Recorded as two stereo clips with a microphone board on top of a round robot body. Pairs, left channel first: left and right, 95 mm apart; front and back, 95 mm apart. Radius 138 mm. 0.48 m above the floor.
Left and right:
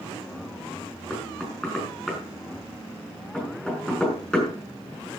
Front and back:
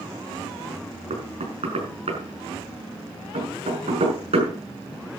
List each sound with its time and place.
1.1 s knocking: 175° left, 6 m